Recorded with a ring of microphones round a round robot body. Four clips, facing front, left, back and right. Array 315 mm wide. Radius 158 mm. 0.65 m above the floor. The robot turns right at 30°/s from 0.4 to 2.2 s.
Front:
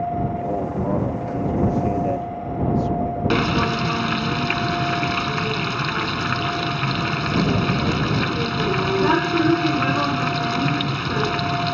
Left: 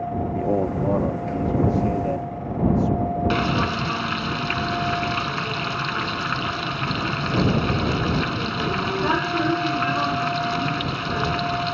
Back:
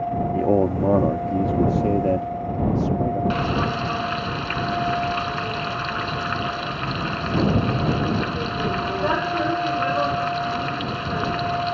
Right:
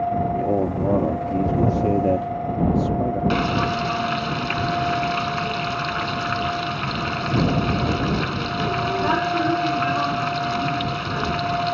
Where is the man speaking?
Straight behind; by 3.2 s 125° right.